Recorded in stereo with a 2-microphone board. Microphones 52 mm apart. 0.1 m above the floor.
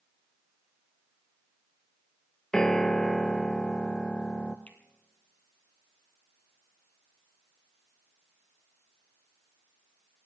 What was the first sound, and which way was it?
A piano, 10° left (ahead or behind).